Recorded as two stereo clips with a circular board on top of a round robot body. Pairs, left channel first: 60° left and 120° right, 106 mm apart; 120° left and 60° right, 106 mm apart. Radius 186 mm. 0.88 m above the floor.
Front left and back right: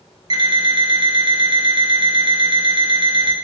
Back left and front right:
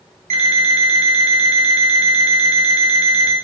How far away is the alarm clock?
About 0.6 m.